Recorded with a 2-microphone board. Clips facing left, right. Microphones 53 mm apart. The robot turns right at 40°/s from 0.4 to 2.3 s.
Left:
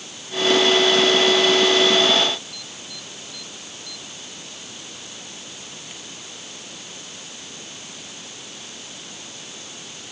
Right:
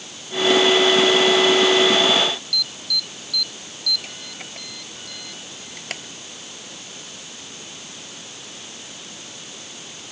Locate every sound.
2.5 s an alarm: 80° right